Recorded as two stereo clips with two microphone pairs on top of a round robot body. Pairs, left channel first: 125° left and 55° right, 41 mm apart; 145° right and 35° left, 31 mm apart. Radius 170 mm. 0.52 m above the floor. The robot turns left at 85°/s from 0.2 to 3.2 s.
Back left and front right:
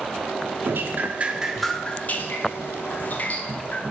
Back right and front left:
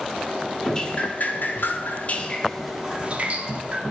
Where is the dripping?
65° right, 0.8 m; by 3.8 s 80° left, 0.8 m.